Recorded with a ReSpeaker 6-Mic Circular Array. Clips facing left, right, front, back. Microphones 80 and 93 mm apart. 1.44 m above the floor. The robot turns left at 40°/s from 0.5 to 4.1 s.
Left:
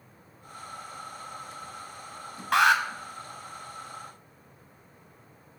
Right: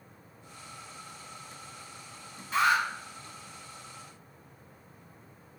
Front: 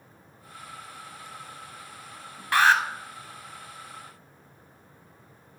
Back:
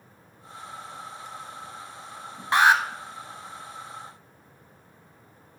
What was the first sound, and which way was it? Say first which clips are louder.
An alarm: left 4 dB, back 1 dB; 110° left.